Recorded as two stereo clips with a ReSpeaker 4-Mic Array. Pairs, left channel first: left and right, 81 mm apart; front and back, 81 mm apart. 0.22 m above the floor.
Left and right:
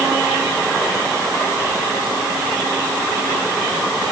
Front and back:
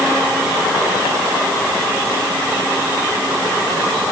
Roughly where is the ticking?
No ticking in this recording.